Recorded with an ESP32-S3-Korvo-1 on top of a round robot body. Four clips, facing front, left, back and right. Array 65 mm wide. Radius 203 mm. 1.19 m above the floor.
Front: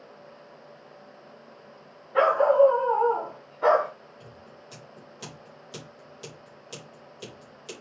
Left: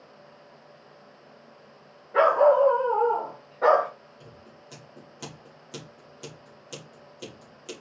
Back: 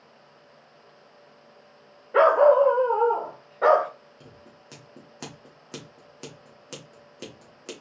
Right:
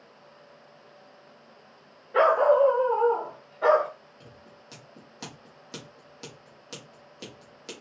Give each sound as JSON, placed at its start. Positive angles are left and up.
{"t": 2.1, "sound": "a dog barking", "azimuth_deg": 180, "distance_m": 2.0}
{"t": 4.2, "sound": "scissors", "azimuth_deg": -170, "distance_m": 3.0}